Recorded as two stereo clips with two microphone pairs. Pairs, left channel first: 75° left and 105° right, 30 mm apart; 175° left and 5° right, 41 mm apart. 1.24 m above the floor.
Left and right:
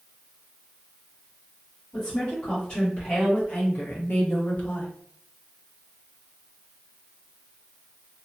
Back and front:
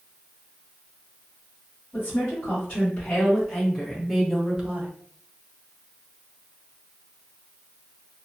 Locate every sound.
1.9 s a woman speaking: 115° left, 1.8 m; by 4.9 s 55° left, 0.8 m